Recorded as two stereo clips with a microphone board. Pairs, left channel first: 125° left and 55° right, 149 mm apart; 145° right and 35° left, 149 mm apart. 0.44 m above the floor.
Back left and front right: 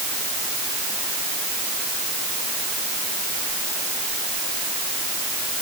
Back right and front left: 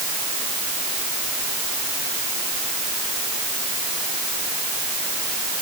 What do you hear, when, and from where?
Only background noise.